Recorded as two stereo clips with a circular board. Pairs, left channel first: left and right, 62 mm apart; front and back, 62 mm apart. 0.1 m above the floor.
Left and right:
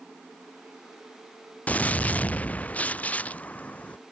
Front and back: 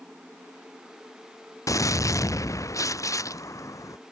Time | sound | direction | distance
1.7 | a gunshot | 25° left | ?